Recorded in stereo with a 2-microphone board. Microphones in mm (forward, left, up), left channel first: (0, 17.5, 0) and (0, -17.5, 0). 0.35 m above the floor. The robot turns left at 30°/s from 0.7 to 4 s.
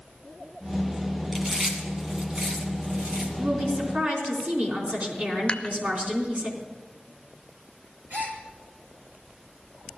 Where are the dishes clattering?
30° left (ahead or behind), 0.7 m.